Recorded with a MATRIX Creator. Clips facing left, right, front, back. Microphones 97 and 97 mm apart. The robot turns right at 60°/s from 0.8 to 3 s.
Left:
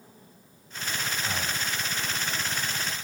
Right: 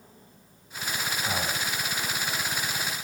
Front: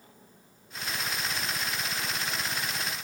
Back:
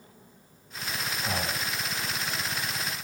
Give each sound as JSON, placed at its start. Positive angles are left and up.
{"t": 1.2, "sound": "breathing", "azimuth_deg": -165}